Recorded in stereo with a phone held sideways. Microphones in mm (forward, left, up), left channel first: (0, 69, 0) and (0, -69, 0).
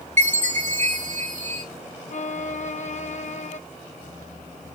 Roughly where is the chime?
Right.